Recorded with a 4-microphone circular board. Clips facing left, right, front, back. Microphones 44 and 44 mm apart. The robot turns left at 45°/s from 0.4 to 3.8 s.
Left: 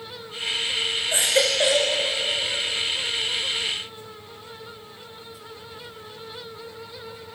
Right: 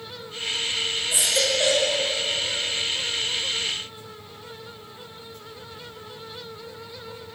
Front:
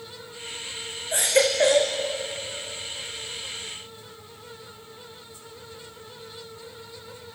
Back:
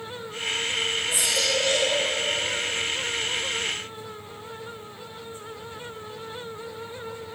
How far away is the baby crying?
About 4.5 m.